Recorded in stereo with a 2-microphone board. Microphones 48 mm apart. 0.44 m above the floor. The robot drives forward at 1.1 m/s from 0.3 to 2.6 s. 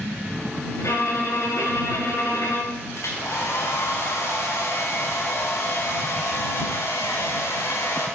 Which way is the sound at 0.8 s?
75° left (ahead or behind).